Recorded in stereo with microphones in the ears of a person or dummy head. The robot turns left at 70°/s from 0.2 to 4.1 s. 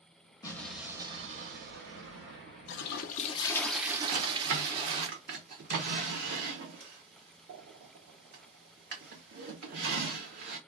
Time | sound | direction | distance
0.4 | an explosion | 20° left | 1.1 m
2.7 | a toilet flushing | 75° left | 0.5 m
4.1 | a drawer | 50° right (ahead or behind) | 0.8 m